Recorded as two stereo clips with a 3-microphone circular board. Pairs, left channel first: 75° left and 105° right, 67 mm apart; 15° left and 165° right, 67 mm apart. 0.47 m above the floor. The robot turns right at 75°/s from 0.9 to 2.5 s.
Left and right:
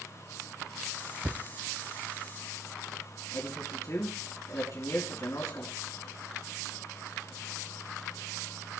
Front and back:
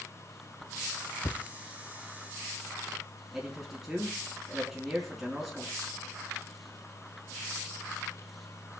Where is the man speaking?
110° left, 4.5 m.